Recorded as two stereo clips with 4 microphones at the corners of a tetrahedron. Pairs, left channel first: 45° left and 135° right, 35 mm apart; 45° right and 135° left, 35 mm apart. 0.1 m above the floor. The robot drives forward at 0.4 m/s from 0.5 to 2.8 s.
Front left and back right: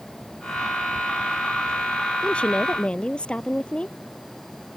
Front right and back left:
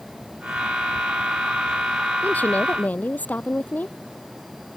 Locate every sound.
2.2 s a woman speaking: 10° right